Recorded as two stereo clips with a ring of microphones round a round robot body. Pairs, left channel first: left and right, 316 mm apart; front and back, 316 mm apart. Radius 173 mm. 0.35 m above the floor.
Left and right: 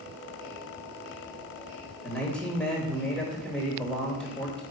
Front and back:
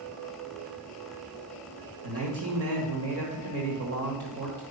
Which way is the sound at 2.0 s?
175° left.